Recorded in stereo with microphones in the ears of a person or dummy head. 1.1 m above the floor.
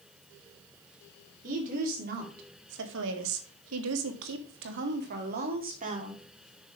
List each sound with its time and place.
1.4 s a woman speaking: 40° right (ahead or behind), 3 m; by 6.2 s 35° right (ahead or behind), 3 m